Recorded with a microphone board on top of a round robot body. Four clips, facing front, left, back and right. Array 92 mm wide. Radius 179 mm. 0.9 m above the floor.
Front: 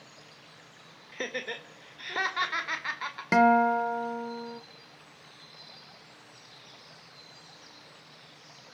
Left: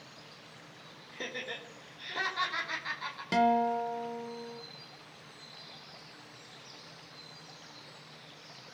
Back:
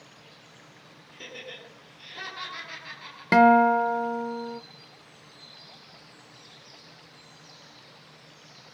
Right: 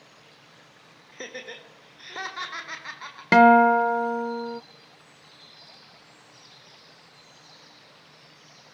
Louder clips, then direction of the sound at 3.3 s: Right 12 dB, back 4 dB; 105° right.